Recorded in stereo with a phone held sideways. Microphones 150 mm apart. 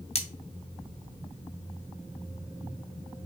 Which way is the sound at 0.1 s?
45° left (ahead or behind).